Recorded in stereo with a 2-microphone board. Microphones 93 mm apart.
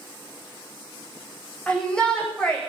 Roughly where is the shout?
Centre.